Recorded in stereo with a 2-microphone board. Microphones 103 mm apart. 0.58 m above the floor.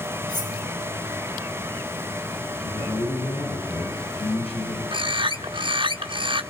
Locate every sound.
0.3 s cutlery clinking: 45° left (ahead or behind), 8.5 m
2.6 s a man speaking: 65° left (ahead or behind), 6 m
4.9 s a bird: 55° right (ahead or behind), 1.2 m